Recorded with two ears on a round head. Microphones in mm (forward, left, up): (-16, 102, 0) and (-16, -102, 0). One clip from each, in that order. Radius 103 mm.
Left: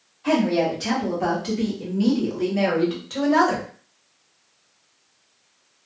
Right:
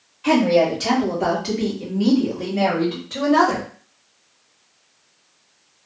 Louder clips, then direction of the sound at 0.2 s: Right 5 dB; 30° right (ahead or behind).